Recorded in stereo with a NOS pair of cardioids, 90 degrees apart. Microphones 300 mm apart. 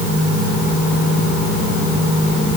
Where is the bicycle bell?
I don't hear a bicycle bell.